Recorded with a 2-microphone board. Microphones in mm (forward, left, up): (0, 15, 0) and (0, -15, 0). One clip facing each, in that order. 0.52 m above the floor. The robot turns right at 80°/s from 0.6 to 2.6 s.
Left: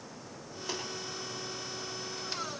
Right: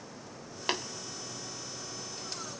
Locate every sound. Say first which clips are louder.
0.7 s tapping: right 6 dB; 55° right (ahead or behind), 2 m; by 0.8 s 60° right (ahead or behind), 2 m